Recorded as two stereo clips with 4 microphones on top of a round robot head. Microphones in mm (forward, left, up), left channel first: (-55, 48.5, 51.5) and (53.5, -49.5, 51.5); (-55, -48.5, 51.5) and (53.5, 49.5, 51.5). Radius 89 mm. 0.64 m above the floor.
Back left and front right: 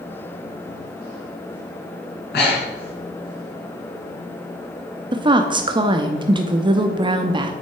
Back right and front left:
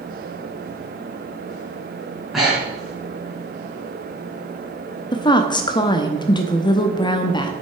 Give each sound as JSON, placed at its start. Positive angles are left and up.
{"t": 2.3, "sound": "breathing", "azimuth_deg": 130, "distance_m": 4.0}
{"t": 5.1, "sound": "a woman speaking", "azimuth_deg": -90, "distance_m": 0.7}